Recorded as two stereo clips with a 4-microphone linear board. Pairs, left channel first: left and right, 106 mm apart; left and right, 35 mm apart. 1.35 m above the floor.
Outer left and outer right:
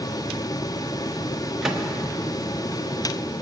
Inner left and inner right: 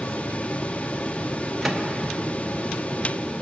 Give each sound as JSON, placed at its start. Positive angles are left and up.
{"t": 1.6, "sound": "a microwave", "side_deg": -5, "distance_m": 1.1}